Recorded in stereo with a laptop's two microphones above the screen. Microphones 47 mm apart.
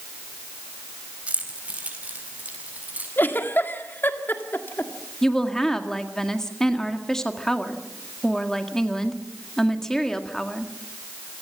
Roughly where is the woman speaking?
Centre.